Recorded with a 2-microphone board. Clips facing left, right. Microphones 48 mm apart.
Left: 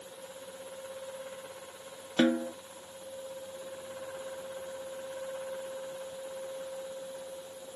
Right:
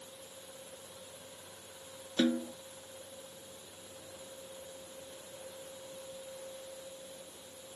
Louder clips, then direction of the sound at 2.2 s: Left 4 dB; 40° left (ahead or behind).